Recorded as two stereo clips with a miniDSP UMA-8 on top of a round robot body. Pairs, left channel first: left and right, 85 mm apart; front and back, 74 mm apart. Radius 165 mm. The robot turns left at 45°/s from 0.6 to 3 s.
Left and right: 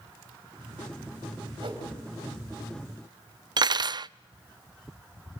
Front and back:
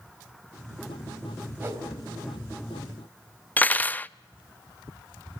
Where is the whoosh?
120° right, 4.5 m; by 1.8 s 130° right, 4.5 m.